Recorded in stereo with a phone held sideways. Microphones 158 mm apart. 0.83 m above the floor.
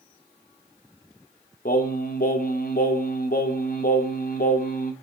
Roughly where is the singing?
Left.